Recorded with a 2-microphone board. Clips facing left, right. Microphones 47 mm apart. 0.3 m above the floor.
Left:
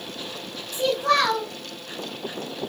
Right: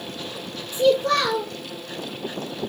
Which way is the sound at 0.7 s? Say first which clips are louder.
Right 3 dB; 50° left (ahead or behind).